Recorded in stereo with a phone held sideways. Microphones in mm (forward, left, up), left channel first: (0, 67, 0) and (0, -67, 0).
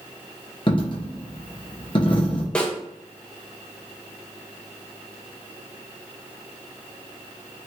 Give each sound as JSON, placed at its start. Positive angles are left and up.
{"t": 0.7, "sound": "a dropped coin", "side_deg": 40, "distance_m": 0.8}
{"t": 2.5, "sound": "a snare drum", "side_deg": 10, "distance_m": 0.6}